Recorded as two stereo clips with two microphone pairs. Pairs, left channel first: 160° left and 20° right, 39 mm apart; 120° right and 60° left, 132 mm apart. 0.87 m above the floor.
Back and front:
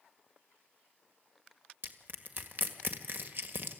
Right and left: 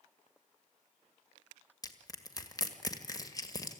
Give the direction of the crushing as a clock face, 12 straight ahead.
2 o'clock.